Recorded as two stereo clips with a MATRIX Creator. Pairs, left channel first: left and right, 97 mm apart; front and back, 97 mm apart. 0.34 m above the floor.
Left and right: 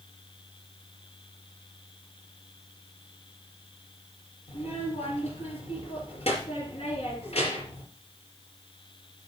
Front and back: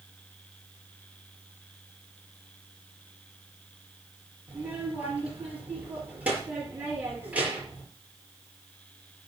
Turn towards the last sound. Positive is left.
turn(degrees=105)